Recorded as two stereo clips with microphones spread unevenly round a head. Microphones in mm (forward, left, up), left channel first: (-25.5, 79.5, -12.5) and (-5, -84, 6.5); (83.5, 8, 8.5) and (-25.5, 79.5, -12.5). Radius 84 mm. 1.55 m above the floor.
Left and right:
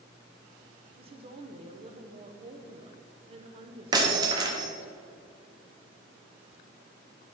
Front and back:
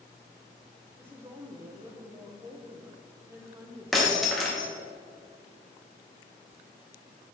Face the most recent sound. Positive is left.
turn(degrees=-105)